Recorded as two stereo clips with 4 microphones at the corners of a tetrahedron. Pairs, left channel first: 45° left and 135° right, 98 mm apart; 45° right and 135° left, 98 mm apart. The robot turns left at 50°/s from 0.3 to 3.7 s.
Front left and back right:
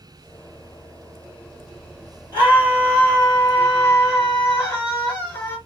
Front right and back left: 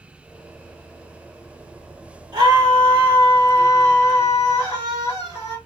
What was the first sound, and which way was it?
A scream, straight behind.